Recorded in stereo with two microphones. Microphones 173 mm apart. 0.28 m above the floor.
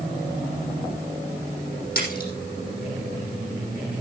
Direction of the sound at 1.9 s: 65° left (ahead or behind).